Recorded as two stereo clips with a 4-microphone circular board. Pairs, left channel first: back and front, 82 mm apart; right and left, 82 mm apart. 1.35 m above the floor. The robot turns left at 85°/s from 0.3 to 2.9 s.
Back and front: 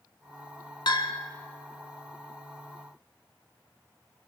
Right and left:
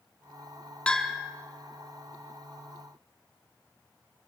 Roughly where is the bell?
Behind.